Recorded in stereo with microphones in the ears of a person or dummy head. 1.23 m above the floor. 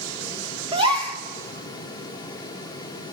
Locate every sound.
0.7 s a gasp: 30° right (ahead or behind), 1.6 m